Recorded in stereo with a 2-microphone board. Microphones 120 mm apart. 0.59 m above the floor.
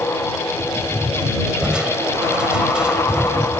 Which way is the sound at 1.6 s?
5° right (ahead or behind).